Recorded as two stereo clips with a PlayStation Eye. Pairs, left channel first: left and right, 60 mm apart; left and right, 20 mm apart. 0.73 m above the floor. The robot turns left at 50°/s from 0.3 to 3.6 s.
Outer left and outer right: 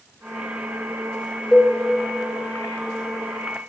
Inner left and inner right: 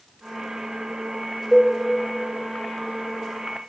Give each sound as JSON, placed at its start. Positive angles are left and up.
{"t": 1.5, "sound": "a cowbell", "side_deg": 5, "distance_m": 1.9}